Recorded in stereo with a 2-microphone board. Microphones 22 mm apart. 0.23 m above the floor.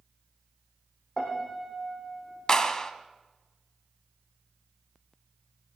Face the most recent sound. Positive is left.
turn(degrees=30)  # may be behind; listen again after turning